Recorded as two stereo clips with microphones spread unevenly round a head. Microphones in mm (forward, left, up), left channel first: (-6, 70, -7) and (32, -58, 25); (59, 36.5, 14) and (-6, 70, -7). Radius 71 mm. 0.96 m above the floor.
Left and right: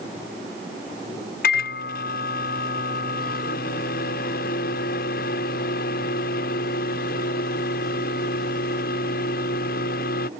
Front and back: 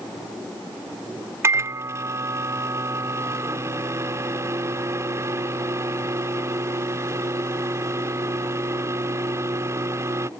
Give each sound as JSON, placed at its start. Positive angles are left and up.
{"t": 1.4, "sound": "a microwave", "azimuth_deg": 105}